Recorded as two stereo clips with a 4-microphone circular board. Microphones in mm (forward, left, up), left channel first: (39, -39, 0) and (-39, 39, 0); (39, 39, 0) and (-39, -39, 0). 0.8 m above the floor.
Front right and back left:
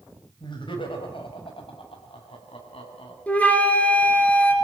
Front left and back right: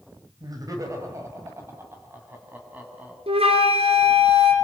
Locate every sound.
0.4 s laughter: 85° right, 4 m; by 3.2 s 60° right, 6.5 m
3.3 s a flute: 120° right, 2.5 m